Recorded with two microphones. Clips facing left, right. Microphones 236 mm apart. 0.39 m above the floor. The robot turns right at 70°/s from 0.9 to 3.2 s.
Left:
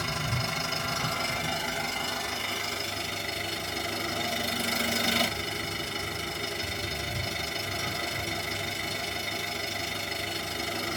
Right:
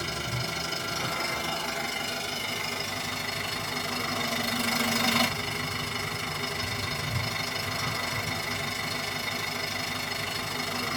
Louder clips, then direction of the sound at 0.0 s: Left 1 dB; 120° left.